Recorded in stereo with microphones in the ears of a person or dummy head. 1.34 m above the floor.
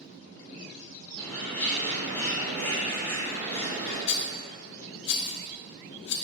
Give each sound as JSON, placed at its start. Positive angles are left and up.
{"t": 1.2, "sound": "a bird", "side_deg": 10, "distance_m": 1.7}
{"t": 4.1, "sound": "a rattle", "side_deg": 60, "distance_m": 0.5}